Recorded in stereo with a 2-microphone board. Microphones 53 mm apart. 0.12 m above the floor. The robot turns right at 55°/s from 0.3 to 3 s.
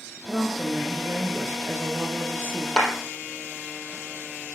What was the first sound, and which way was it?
A woman speaking, 165° left.